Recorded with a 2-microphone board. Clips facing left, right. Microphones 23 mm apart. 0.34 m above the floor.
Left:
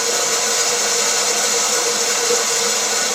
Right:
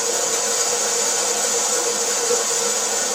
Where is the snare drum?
No snare drum in this recording.